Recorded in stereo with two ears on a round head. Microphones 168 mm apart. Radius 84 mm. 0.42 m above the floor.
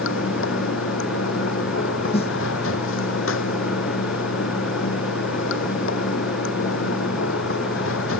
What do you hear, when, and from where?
0.0 s running water: 80° left
2.1 s a snare drum: 35° left (ahead or behind)